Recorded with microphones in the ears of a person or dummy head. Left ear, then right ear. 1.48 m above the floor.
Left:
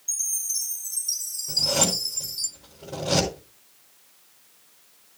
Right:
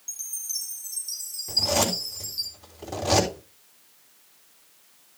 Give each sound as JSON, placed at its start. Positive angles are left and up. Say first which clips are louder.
{"t": 0.1, "sound": "a chime", "louder": "left 6 dB", "side_deg": 0, "distance_m": 1.4}
{"t": 1.5, "sound": "a zipper", "louder": "even", "side_deg": -70, "distance_m": 3.5}